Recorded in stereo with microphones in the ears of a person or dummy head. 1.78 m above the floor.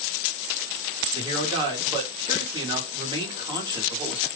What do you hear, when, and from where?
1.1 s a man speaking: 25° right (ahead or behind), 1.2 m